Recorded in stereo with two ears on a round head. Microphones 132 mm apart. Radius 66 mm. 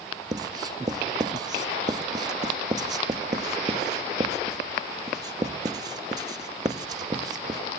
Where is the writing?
30° right (ahead or behind), 0.8 m.